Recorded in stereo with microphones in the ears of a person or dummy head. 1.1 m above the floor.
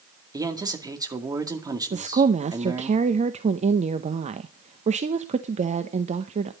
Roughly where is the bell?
No bell in this recording.